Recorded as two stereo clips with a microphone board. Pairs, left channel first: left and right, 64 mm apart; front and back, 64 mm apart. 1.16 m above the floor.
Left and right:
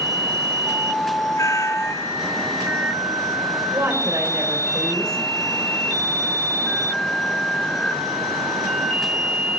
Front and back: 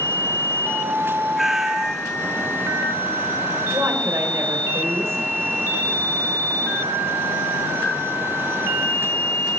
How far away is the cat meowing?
About 1.0 m.